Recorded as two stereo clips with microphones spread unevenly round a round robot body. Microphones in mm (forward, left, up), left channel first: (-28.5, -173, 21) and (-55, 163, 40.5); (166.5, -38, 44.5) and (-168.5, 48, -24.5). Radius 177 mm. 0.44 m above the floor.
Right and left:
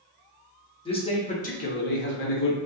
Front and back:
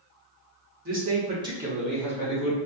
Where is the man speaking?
155° right, 1.3 m; by 2.6 s 90° right, 1.1 m.